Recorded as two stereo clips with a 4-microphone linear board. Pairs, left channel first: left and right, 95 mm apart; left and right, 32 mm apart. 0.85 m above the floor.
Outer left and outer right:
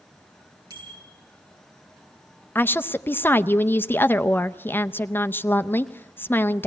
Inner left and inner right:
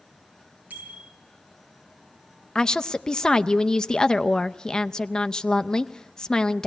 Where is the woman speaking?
20° left (ahead or behind), 0.5 m.